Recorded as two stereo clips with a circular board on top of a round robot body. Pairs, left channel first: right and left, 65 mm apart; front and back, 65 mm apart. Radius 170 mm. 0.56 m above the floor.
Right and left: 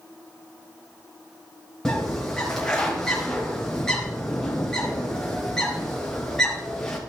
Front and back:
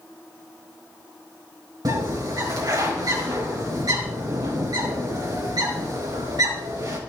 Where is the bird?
170° right, 4.5 m.